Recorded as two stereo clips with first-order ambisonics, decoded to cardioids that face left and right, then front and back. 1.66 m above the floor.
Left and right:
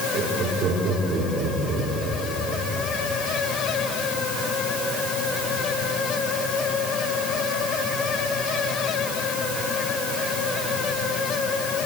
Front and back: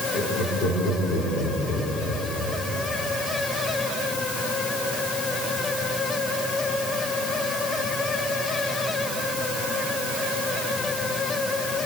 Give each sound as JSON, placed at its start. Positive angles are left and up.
{"t": 0.1, "sound": "laughter", "azimuth_deg": -35, "distance_m": 6.0}